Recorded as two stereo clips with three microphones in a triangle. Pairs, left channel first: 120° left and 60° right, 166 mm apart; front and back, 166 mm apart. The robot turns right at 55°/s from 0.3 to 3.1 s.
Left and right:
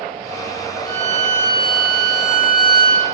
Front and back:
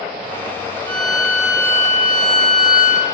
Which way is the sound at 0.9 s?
60° left.